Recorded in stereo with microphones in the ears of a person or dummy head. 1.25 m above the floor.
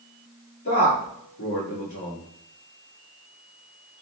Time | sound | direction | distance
0.7 | a man speaking | 50° left (ahead or behind) | 2 m